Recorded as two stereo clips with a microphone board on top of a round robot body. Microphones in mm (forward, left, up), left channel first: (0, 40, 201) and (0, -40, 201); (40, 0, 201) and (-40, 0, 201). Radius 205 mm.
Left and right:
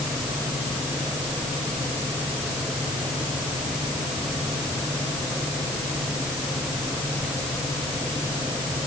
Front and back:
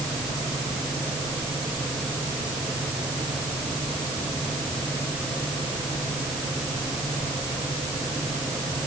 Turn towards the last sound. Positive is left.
No sound to turn to.